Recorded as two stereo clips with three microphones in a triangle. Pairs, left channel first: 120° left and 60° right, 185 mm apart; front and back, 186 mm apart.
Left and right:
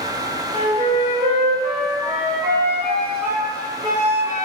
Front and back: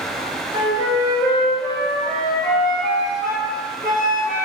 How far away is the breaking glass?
I don't hear breaking glass.